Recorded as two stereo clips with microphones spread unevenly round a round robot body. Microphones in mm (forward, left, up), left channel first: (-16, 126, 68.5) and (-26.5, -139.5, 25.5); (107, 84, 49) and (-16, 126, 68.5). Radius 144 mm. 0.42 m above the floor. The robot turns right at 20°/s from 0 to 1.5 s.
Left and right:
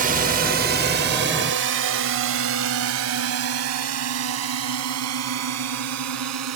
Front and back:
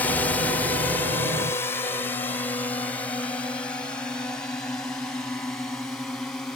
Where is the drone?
80° right; by 6.6 s 105° right.